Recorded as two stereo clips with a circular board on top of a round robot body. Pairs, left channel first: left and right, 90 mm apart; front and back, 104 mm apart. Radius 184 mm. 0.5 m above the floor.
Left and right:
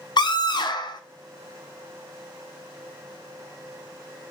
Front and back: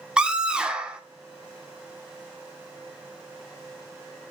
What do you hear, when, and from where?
0.2 s a scream: 100° left, 2 m